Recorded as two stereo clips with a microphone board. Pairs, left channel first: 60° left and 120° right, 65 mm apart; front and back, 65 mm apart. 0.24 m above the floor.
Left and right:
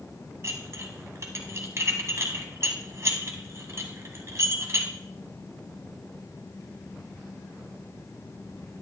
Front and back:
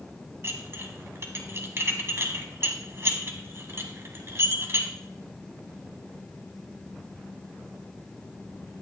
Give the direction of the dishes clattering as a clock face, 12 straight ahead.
5 o'clock.